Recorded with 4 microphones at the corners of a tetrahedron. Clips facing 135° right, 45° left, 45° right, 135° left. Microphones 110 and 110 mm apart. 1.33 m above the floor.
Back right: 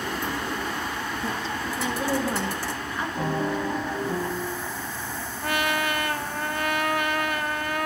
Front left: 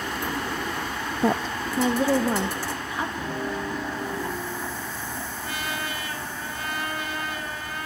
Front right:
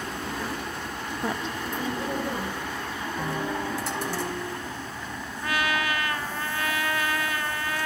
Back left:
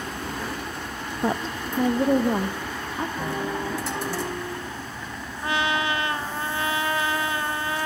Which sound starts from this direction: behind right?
A piano, at 3.2 s.